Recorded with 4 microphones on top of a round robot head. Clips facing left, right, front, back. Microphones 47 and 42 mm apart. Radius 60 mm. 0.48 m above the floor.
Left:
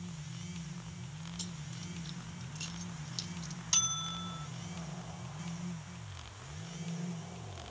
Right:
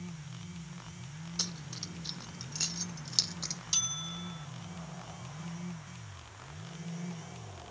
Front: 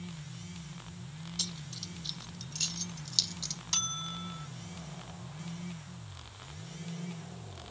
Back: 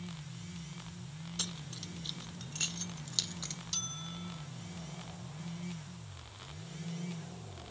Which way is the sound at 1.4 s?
120° right.